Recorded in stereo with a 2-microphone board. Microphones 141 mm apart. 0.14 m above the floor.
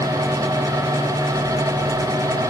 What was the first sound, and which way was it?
Only background noise.